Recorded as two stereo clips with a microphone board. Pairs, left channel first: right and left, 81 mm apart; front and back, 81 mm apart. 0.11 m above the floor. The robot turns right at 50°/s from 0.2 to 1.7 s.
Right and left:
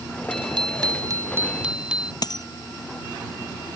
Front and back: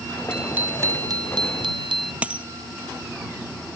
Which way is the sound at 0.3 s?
100° left.